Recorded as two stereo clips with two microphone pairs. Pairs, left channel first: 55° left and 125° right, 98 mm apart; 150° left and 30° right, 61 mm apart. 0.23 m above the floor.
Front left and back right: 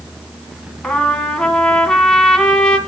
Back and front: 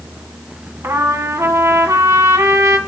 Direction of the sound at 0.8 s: 25° right.